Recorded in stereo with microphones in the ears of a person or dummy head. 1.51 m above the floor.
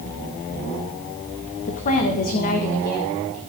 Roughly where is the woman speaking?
Left.